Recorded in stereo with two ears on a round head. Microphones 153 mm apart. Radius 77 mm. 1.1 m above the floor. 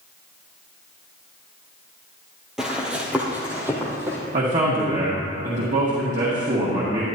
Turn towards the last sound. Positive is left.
turn(degrees=-50)  # may be behind; listen again after turning